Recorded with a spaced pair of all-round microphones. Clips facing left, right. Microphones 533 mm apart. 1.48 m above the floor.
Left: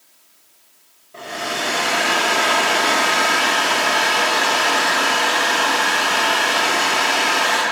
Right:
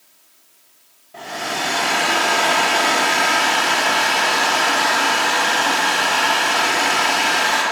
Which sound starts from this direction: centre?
A hair dryer, at 1.1 s.